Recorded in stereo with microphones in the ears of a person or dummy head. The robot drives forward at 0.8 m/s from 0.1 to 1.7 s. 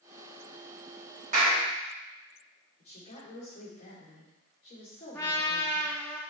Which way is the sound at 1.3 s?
40° right (ahead or behind).